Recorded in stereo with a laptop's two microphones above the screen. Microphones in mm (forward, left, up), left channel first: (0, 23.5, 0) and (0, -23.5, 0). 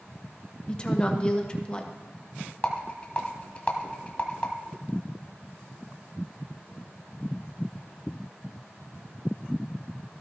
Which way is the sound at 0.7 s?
20° left (ahead or behind).